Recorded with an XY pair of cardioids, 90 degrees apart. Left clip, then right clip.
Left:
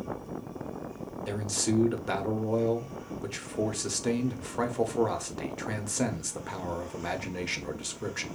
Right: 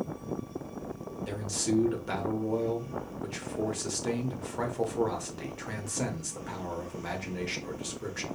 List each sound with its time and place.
1.3 s a man speaking: 30° left, 0.8 m